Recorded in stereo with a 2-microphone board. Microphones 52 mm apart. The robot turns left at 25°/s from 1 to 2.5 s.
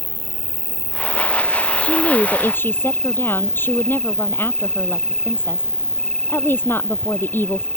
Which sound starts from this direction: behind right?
An insect, at 0.0 s.